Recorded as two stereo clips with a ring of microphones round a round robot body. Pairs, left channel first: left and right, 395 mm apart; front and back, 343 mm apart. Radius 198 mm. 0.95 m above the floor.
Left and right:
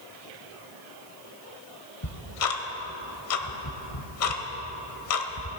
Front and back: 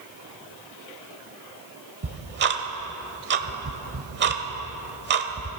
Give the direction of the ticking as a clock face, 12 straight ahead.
8 o'clock.